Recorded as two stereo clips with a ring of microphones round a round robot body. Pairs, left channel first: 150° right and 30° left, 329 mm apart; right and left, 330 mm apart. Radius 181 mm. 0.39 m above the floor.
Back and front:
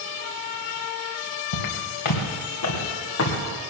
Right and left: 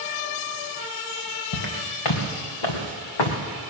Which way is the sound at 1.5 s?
120° right.